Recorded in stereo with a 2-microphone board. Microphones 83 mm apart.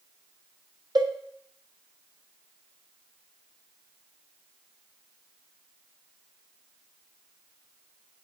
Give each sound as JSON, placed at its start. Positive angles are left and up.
{"t": 0.9, "sound": "a cowbell", "side_deg": -50, "distance_m": 1.1}